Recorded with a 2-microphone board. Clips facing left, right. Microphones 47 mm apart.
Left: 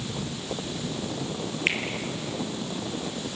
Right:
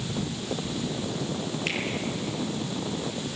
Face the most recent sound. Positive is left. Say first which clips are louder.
# left 6 dB
turn(degrees=45)  # may be behind; listen again after turning